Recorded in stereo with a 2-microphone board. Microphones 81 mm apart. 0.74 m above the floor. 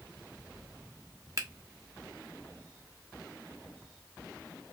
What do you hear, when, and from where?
1.4 s a finger snap: 40° right (ahead or behind), 0.9 m